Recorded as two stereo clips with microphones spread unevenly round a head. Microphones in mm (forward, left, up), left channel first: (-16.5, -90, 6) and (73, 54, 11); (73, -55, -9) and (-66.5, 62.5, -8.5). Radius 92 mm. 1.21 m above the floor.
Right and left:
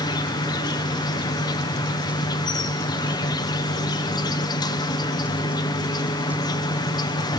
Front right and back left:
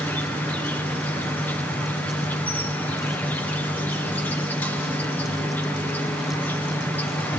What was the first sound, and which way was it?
An insect, 110° right.